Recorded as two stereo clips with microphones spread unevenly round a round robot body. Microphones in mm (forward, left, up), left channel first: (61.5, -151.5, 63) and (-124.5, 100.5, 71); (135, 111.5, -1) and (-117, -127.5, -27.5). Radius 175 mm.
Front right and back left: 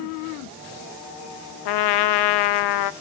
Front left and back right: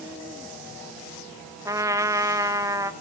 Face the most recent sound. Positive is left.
turn(degrees=-55)